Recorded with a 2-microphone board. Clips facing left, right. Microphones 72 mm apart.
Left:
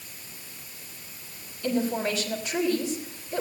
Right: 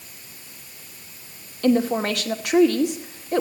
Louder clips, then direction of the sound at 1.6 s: Right 7 dB; 75° right (ahead or behind).